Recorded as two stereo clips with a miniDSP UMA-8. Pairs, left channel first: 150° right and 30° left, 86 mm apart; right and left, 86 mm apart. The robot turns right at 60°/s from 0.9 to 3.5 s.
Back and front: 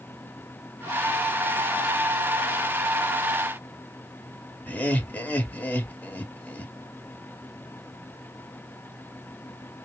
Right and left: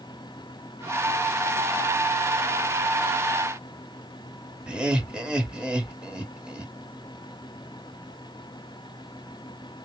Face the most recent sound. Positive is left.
turn(degrees=160)